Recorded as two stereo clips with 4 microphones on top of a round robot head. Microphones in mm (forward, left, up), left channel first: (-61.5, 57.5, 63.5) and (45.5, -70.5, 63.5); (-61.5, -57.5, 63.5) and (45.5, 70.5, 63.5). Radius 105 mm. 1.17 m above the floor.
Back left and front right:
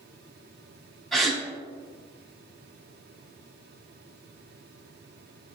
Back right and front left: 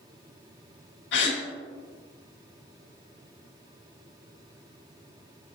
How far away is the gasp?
About 2 m.